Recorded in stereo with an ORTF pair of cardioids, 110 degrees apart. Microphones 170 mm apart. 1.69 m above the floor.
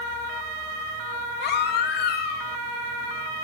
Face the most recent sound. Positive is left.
turn(degrees=65)